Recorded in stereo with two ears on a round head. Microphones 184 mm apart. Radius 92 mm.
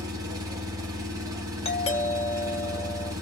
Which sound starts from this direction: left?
A doorbell, at 1.6 s.